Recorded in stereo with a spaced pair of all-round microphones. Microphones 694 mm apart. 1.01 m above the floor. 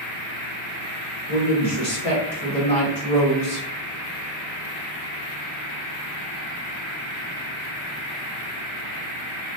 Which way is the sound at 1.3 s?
60° left (ahead or behind).